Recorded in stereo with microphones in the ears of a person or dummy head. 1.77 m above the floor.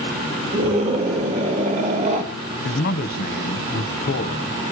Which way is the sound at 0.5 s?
35° right (ahead or behind).